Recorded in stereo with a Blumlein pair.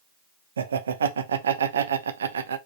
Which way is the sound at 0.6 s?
70° right.